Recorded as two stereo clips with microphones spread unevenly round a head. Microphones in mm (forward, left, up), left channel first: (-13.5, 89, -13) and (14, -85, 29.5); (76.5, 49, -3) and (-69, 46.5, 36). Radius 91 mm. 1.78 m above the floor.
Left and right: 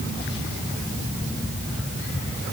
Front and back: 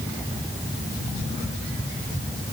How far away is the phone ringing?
I don't hear a phone ringing.